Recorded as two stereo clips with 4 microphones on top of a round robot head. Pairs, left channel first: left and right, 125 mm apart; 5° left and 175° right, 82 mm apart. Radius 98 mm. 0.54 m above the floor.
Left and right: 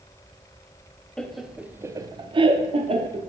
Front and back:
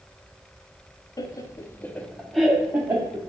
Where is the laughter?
5° left, 0.8 m; by 3.3 s 115° right, 1.1 m.